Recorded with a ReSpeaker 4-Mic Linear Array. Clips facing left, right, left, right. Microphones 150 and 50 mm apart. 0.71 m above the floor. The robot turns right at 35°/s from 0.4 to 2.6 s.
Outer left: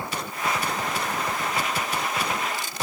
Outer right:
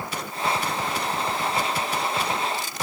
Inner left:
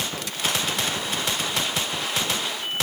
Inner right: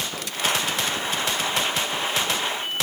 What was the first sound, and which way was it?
Only background noise.